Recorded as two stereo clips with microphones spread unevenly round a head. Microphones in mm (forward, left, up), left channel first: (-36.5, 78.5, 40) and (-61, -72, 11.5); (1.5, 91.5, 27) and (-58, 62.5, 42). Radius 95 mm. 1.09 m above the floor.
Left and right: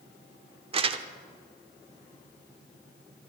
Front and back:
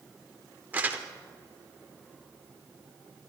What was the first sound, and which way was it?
Crumpling, 140° right.